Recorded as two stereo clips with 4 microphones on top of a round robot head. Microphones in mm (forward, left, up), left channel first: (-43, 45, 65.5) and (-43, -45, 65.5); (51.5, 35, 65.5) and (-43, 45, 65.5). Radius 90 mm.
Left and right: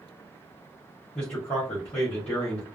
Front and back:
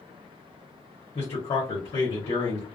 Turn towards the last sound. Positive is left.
turn(degrees=15)